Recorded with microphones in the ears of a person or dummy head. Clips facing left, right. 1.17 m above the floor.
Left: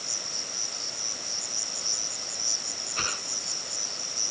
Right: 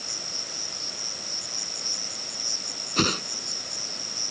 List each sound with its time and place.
0.0 s an insect: 15° right (ahead or behind)
3.0 s a whoosh: 60° right (ahead or behind)